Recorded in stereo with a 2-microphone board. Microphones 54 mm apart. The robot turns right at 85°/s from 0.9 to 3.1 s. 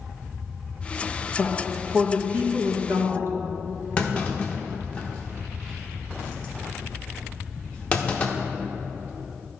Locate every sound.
1.4 s a woman speaking: 155° left, 1.2 m; by 3.3 s 60° right, 1.2 m
4.0 s a clunk: 25° left (ahead or behind), 0.9 m